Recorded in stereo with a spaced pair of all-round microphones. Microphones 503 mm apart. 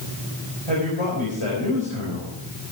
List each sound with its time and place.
0.7 s a man speaking: 80° left, 4.5 m